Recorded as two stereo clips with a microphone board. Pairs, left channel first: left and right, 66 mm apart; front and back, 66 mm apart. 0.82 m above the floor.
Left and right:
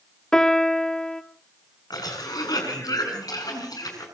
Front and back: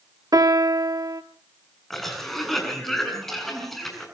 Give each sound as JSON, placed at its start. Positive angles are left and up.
{"t": 0.3, "sound": "a piano", "azimuth_deg": 170, "distance_m": 1.3}
{"t": 1.9, "sound": "a cough", "azimuth_deg": 85, "distance_m": 7.5}